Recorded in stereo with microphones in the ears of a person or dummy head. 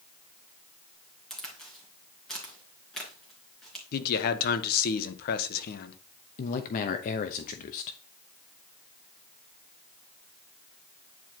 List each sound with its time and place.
1.3 s a crack: 5° left (ahead or behind), 2.5 m
3.9 s a man speaking: 55° left (ahead or behind), 1.0 m
6.4 s a man speaking: 50° left (ahead or behind), 0.7 m